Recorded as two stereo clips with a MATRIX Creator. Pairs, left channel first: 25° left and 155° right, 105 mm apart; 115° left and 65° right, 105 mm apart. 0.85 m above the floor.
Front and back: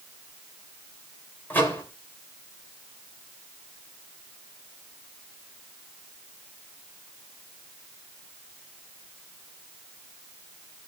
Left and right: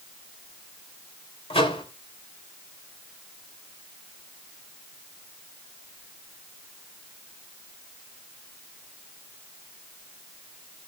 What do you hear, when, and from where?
1.5 s a microwave: 95° left, 3 m